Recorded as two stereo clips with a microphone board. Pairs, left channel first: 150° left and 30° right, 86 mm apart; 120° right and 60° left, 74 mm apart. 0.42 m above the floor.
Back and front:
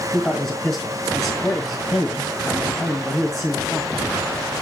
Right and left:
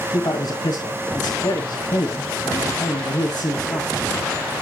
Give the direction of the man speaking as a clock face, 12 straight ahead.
4 o'clock.